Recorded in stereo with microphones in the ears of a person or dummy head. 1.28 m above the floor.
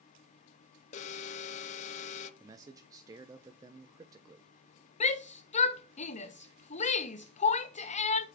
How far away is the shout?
About 0.8 m.